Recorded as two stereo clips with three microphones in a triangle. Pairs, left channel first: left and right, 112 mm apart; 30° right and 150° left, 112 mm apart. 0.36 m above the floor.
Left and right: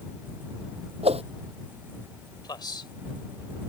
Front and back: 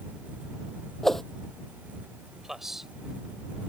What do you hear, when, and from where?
1.0 s a whoosh: 120° right
2.4 s a man speaking: 65° left